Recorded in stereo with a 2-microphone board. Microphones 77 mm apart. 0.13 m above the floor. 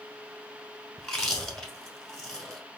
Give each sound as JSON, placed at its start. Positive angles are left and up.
{"t": 1.0, "sound": "chewing", "side_deg": 5, "distance_m": 0.9}